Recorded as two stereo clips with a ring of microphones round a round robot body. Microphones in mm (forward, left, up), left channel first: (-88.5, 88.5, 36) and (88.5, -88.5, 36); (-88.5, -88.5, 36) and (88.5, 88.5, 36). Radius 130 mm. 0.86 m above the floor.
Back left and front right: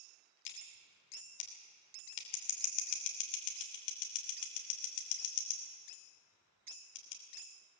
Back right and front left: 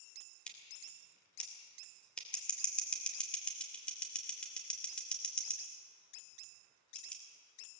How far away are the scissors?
About 3 m.